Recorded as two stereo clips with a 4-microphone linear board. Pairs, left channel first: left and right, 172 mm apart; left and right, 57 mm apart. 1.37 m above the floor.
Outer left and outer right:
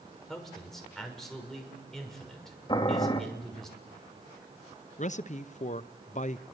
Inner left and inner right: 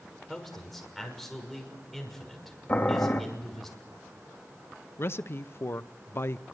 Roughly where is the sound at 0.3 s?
Centre.